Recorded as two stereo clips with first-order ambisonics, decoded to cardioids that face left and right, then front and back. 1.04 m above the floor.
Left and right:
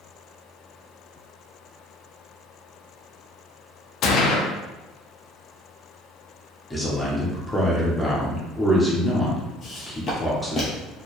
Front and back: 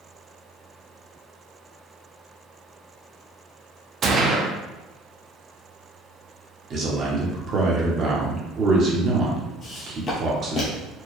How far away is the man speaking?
About 0.8 m.